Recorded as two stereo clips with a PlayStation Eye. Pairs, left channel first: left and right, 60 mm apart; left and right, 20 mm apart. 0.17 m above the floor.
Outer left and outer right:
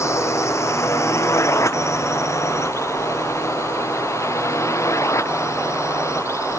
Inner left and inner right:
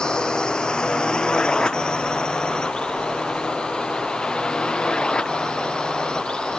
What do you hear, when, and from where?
0.0 s a drone: 45° left (ahead or behind); by 6.6 s 50° left (ahead or behind)